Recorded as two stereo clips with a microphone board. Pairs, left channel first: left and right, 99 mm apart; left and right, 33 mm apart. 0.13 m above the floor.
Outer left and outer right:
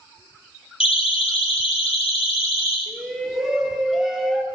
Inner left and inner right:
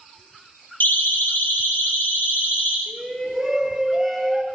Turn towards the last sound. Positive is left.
turn(degrees=0)  # may be behind; listen again after turning